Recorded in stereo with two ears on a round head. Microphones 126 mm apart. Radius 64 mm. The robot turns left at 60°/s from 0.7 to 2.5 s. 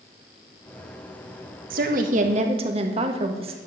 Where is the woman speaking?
85° right, 1.7 m; by 3.6 s 130° right, 1.7 m.